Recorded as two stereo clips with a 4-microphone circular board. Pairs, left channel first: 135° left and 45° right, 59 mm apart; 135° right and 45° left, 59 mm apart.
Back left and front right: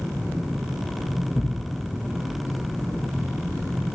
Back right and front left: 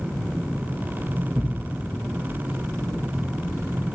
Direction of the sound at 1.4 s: 95° left.